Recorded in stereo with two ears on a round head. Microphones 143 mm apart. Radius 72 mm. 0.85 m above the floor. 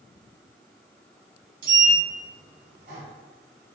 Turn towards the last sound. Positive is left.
turn(degrees=-55)  # may be behind; listen again after turning